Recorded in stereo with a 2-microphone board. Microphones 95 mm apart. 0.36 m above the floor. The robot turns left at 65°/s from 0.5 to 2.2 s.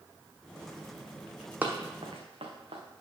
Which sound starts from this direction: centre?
Running footsteps, at 1.6 s.